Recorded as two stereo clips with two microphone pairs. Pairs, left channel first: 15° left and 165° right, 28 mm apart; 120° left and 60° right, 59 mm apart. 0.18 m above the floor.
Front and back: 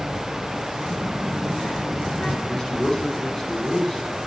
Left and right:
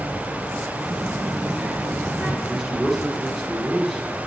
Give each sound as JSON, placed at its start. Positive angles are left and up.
{"t": 0.8, "sound": "a child speaking", "azimuth_deg": 35, "distance_m": 2.0}
{"t": 2.5, "sound": "a man speaking", "azimuth_deg": 25, "distance_m": 1.0}